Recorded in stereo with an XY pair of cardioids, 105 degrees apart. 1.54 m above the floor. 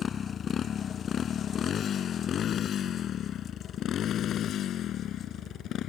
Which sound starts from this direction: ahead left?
A motorcycle, at 0.0 s.